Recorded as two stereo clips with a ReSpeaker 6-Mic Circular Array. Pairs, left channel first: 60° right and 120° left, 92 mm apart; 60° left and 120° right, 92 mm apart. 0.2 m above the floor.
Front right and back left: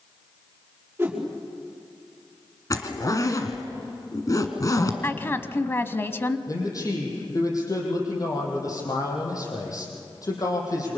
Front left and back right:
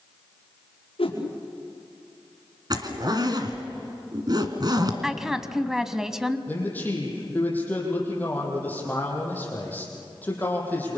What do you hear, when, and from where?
1.0 s a whoosh: 50° left, 5.5 m
2.7 s a zipper: 100° right, 2.0 m
5.0 s a woman speaking: 40° right, 1.0 m
6.5 s a man speaking: 10° right, 6.5 m